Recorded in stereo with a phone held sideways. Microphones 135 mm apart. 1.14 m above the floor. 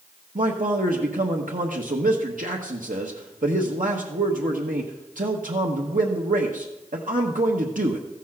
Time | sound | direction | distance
0.3 | a man speaking | 80° right | 1.2 m